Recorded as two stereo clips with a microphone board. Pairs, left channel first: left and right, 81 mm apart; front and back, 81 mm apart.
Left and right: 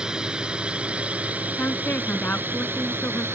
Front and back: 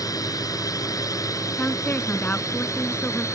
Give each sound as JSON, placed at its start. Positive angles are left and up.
{"t": 0.0, "sound": "a drone", "azimuth_deg": -15}
{"t": 1.6, "sound": "a woman speaking", "azimuth_deg": 50}